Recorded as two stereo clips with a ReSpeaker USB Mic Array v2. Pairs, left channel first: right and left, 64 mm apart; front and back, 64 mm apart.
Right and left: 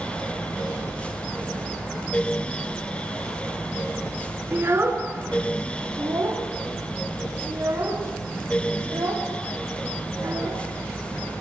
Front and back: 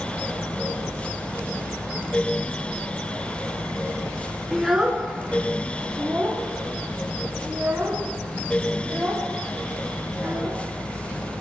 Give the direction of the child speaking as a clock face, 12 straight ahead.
9 o'clock.